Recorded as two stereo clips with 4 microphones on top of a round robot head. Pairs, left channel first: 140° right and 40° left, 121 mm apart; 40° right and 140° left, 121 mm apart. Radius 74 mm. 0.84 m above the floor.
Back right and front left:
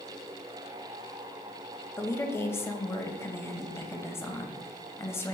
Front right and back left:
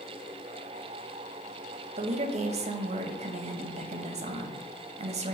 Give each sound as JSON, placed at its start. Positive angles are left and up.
{"t": 2.0, "sound": "a woman speaking", "azimuth_deg": 155, "distance_m": 0.7}